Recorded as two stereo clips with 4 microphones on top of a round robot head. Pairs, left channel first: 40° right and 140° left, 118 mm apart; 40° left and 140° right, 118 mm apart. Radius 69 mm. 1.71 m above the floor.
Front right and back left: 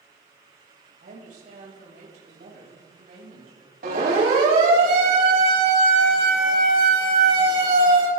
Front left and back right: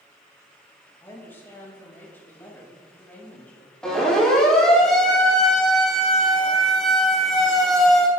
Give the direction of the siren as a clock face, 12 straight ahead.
8 o'clock.